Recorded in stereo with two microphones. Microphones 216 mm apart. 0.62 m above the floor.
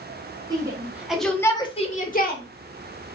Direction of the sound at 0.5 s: 20° right (ahead or behind).